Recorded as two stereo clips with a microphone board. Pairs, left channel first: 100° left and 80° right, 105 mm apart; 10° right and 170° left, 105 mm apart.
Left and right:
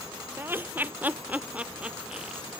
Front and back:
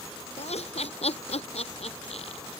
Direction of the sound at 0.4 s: 10° right.